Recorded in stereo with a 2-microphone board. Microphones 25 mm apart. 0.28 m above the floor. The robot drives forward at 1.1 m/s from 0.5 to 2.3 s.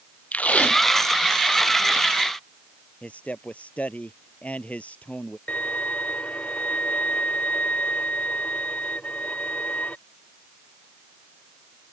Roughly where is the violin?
Left.